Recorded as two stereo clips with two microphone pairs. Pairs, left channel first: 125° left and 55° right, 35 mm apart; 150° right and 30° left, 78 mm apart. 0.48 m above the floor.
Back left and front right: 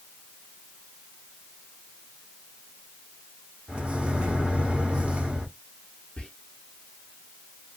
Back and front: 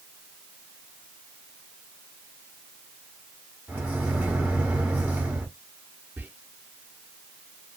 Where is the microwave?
30° right, 1.2 m.